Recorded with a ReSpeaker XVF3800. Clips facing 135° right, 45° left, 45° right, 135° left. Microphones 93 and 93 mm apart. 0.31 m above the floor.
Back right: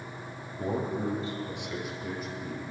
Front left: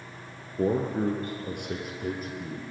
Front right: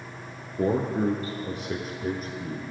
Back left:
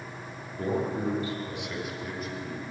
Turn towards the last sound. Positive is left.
turn(degrees=5)